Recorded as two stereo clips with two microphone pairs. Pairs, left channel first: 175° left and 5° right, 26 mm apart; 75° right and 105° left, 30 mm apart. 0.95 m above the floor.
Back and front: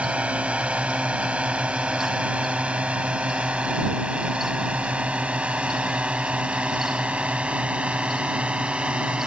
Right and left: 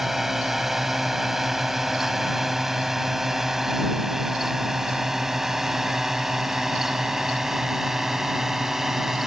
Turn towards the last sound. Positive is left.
turn(degrees=30)